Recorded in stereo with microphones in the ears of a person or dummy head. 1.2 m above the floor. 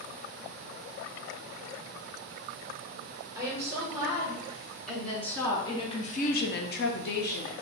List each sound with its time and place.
3.4 s a woman speaking: 5° right (ahead or behind), 1.6 m; by 7.5 s 45° left (ahead or behind), 0.9 m